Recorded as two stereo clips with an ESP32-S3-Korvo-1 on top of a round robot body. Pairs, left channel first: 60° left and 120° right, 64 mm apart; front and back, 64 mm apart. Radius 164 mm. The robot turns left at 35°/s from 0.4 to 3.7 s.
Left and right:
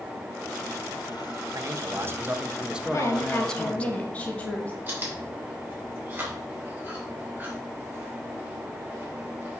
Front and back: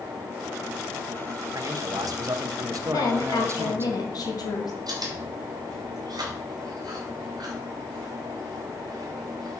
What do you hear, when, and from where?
1.6 s a man speaking: 155° right, 1.1 m; by 3.9 s 130° left, 1.1 m
2.9 s a woman speaking: 20° left, 2 m; by 4.8 s 10° right, 2 m
4.9 s chewing: 175° left, 3.5 m